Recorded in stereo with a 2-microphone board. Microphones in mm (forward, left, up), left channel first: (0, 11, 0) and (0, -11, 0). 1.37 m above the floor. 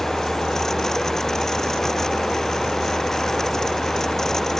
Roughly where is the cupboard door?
I don't hear a cupboard door.